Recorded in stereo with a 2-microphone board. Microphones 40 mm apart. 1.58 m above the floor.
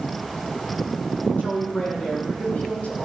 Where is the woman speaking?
35° left (ahead or behind), 4 m; by 3.1 s 40° left (ahead or behind), 3 m.